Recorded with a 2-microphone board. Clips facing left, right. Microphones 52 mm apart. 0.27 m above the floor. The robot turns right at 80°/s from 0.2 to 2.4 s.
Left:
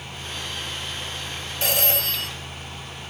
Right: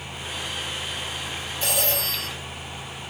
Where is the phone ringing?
90° left, 3 m; by 2.3 s 145° left, 3 m.